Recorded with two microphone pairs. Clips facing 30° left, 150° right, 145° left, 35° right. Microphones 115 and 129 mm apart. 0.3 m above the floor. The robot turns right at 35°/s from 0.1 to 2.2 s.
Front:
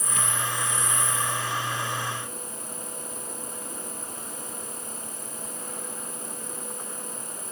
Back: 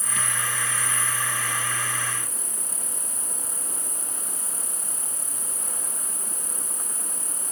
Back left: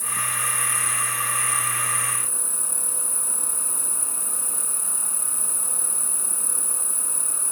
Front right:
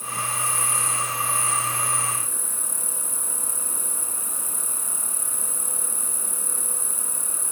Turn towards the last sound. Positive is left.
turn(degrees=-135)